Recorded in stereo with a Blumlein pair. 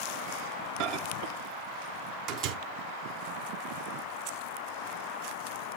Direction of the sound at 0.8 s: 40° right.